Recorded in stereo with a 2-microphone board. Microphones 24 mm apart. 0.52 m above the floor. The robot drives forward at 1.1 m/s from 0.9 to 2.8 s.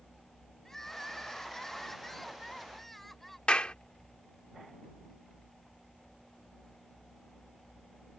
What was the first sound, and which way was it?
Crying, 15° left (ahead or behind).